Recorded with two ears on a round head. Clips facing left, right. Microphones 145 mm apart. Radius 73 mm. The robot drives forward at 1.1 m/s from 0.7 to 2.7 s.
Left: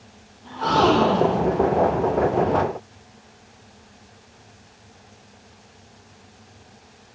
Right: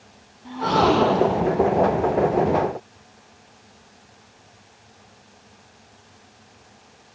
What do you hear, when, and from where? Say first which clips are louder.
0.5 s a gasp: even; 10° right (ahead or behind), 4.5 m